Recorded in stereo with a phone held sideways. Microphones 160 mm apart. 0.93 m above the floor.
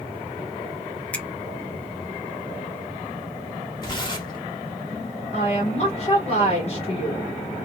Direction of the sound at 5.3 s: 45° left (ahead or behind).